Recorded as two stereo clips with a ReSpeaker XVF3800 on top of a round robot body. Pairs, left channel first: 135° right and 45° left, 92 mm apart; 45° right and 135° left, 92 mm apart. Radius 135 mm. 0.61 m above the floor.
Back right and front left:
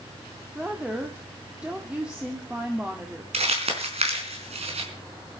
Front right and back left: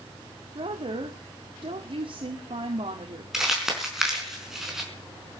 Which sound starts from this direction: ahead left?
Crumpling, at 3.3 s.